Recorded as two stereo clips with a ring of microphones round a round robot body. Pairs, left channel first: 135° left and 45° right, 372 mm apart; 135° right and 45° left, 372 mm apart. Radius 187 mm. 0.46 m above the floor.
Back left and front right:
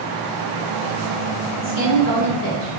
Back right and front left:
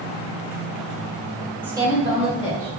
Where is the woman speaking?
125° left, 1.4 m; by 2.7 s 110° left, 1.8 m.